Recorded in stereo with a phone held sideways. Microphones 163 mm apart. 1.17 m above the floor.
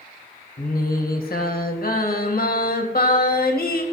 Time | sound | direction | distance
0.6 | singing | 65° left (ahead or behind) | 1.9 m